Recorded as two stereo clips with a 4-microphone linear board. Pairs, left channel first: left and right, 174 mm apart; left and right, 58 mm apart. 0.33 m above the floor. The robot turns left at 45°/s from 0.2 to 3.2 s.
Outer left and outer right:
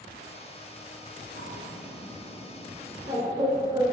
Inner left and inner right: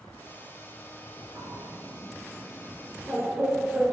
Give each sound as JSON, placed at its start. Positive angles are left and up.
{"t": 1.4, "sound": "a bird", "side_deg": -70, "distance_m": 1.3}